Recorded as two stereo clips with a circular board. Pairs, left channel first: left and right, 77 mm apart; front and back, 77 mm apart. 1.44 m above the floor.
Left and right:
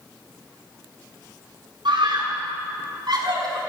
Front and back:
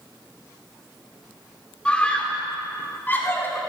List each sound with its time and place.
1.9 s a scream: 75° right, 4 m; by 3.6 s 60° right, 4 m